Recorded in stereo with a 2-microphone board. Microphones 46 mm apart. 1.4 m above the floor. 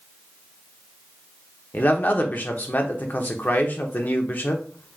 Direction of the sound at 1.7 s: 40° left (ahead or behind).